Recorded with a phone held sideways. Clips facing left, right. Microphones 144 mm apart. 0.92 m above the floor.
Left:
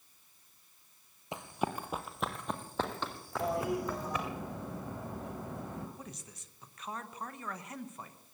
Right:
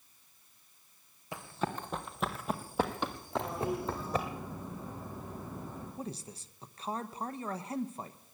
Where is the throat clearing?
No throat clearing in this recording.